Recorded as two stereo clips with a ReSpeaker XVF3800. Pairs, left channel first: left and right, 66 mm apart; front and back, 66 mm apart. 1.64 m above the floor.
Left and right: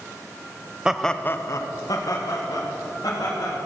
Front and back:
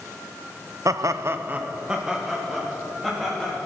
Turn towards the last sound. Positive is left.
turn(degrees=85)